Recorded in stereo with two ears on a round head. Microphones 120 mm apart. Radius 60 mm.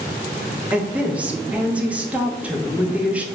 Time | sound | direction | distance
0.7 | a woman speaking | 10° right (ahead or behind) | 0.6 m